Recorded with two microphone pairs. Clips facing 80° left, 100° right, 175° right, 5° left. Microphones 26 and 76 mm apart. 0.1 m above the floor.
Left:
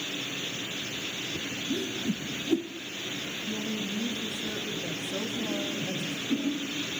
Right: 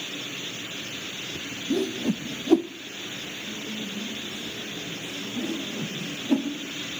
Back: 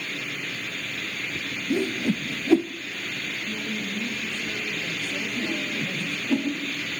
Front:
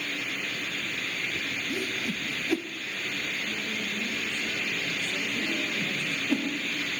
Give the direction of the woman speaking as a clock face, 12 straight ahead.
9 o'clock.